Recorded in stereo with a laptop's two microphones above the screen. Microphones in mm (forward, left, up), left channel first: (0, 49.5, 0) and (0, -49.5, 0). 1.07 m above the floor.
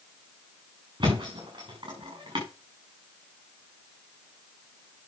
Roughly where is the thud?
Right.